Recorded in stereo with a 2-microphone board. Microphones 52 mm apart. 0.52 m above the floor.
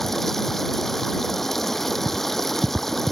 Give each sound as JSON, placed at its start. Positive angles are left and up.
{"t": 0.0, "sound": "running water", "side_deg": 5}